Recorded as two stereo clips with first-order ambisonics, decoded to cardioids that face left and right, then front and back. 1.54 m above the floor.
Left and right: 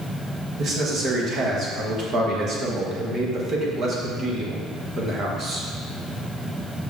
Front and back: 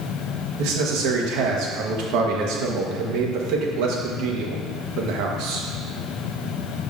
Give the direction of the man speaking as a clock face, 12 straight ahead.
5 o'clock.